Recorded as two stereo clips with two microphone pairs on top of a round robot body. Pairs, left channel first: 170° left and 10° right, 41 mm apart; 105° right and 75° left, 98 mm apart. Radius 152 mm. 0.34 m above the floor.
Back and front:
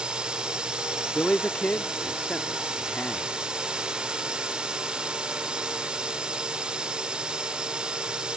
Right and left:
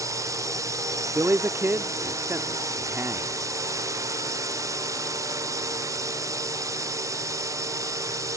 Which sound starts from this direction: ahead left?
A drone, at 0.0 s.